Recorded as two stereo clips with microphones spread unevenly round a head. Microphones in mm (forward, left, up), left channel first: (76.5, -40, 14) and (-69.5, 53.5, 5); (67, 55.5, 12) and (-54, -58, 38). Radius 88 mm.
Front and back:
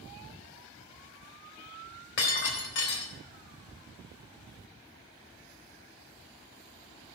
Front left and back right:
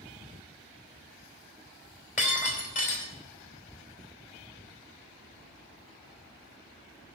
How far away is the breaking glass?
About 3.5 m.